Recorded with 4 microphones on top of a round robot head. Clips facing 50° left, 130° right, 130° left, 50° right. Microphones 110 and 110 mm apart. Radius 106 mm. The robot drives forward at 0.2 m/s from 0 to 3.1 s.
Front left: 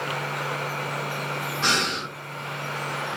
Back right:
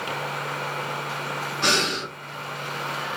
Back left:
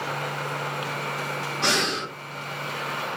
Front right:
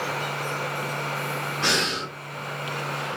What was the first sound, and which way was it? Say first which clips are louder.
Breathing: back right 2 dB, back left 2 dB; 170° right.